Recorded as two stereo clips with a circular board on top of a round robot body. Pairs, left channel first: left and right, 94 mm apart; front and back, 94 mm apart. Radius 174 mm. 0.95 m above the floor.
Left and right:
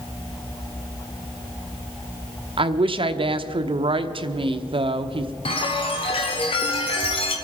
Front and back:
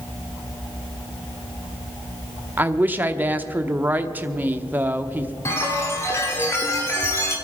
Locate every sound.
2.6 s a woman speaking: 110° right, 1.0 m
5.5 s a chime: 65° left, 1.3 m